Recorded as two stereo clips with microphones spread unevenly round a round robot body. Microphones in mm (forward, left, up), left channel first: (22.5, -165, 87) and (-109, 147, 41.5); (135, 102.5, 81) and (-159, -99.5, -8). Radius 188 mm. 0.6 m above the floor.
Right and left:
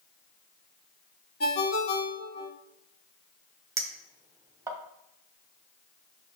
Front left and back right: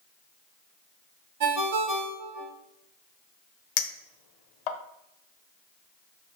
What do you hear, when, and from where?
1.4 s a ringtone: 120° right, 1.5 m
3.8 s a clink: 35° left, 0.9 m